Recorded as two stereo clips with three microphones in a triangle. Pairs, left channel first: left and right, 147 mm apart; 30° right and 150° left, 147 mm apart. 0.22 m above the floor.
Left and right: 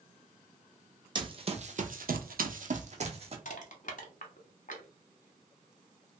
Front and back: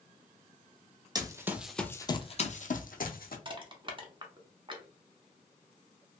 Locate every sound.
1.1 s running footsteps: 145° right, 0.7 m; by 3.4 s 45° right, 0.9 m
3.5 s crushing: 100° left, 0.8 m